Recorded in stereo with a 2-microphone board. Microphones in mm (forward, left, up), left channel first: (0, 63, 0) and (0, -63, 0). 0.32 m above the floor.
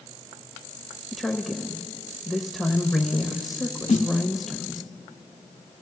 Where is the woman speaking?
Centre (ahead or behind), 0.9 m.